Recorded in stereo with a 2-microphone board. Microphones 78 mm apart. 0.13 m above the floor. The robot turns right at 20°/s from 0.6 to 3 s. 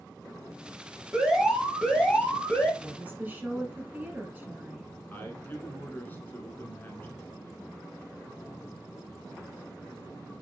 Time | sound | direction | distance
1.1 | an alarm | 10° right | 1.7 m
2.8 | a woman speaking | 20° right (ahead or behind) | 1.4 m
5.1 | a man speaking | 25° left (ahead or behind) | 1.2 m